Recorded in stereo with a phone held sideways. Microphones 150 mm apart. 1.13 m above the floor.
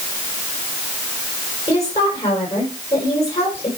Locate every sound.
1.7 s a woman speaking: 40° left (ahead or behind), 5.5 m